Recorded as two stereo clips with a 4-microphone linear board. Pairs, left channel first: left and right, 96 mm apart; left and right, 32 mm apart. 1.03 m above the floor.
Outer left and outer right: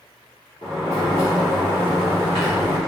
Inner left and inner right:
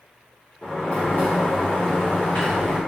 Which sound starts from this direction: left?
A sliding door, at 0.6 s.